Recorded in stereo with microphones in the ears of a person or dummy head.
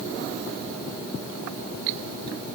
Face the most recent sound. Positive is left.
No sound to turn to.